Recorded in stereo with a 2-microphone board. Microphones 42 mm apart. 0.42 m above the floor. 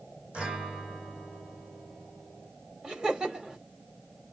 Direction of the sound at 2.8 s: 20° right (ahead or behind).